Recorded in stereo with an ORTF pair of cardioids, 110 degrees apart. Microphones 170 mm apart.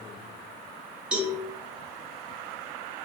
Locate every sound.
1.1 s a cowbell: 5° right, 0.7 m